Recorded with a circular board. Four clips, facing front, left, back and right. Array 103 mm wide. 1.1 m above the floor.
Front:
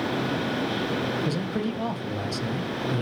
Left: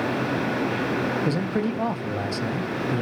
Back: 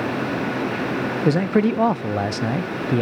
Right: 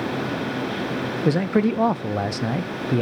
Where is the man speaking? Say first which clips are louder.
Right 5 dB, back 10 dB; 150° right, 0.6 m.